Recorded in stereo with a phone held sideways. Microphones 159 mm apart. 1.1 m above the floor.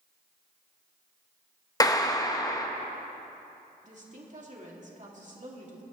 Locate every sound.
1.8 s a clap: 25° left (ahead or behind), 0.8 m
3.8 s a woman speaking: 50° right (ahead or behind), 2.5 m